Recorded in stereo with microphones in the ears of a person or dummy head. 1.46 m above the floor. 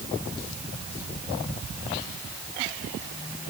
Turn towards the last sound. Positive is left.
No sound to turn to.